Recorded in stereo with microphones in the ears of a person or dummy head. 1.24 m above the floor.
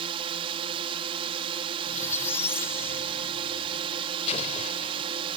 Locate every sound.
0.0 s a drone: 30° right (ahead or behind)
1.9 s a squeak: 15° left (ahead or behind)
4.3 s an explosion: 35° left (ahead or behind)